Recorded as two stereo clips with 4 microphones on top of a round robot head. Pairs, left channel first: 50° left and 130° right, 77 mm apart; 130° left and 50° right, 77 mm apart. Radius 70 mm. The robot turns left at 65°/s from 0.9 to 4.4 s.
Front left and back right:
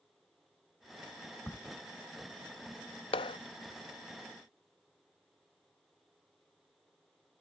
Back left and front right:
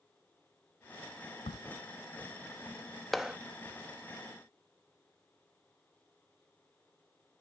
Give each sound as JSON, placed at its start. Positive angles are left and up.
{"t": 1.5, "sound": "a crack", "azimuth_deg": 125}
{"t": 3.1, "sound": "a clap", "azimuth_deg": 40}